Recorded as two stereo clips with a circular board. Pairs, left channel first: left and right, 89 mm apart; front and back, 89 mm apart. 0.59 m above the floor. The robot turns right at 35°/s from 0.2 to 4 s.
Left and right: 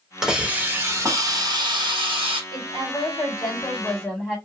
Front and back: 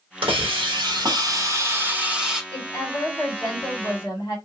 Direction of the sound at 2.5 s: 55° right.